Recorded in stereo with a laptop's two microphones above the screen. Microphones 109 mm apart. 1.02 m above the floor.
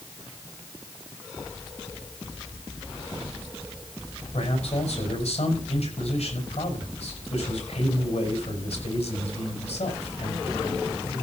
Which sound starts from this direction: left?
A man speaking, at 4.3 s.